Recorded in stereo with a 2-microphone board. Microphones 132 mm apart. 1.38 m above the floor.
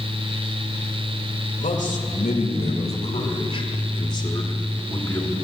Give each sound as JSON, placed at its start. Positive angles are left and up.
{"t": 1.6, "sound": "a man speaking", "side_deg": 75, "distance_m": 2.0}